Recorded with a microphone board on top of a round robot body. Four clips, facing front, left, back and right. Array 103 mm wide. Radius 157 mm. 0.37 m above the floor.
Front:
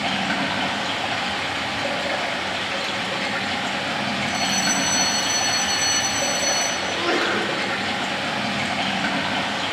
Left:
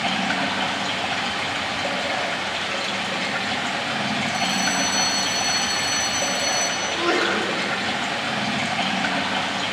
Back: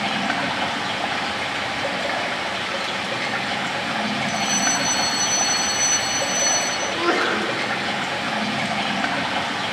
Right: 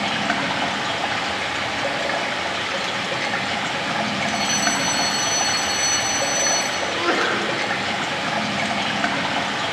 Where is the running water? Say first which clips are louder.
Right 1 dB, back 1 dB; 120° right, 1.5 m.